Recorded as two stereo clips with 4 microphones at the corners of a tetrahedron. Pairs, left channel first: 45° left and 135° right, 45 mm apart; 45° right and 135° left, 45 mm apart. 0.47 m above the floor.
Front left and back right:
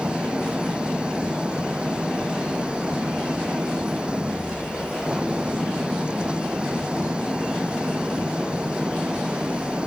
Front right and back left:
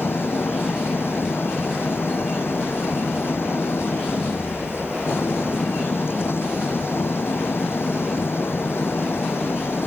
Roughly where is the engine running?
Right.